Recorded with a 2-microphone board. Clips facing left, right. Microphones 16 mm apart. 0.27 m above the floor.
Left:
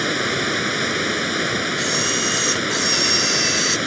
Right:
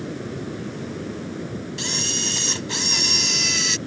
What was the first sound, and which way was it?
Running water, 65° left (ahead or behind).